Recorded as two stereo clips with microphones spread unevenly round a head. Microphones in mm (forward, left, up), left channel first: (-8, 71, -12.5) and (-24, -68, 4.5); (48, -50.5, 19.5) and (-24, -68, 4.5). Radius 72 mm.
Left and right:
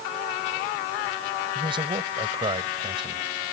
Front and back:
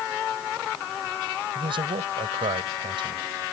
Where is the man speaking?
155° right.